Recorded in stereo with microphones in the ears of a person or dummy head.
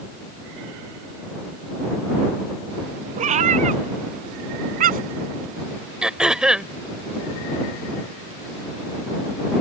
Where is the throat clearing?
5° right (ahead or behind).